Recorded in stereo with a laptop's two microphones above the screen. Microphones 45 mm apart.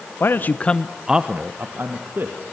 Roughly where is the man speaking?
Left.